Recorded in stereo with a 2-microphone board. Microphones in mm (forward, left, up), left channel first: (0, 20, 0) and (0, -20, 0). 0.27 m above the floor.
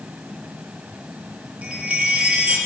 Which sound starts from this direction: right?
A chime, at 1.6 s.